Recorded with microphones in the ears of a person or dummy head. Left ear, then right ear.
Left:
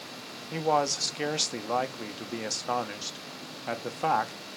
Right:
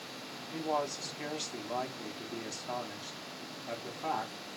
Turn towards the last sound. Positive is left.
turn(degrees=70)  # may be behind; listen again after turning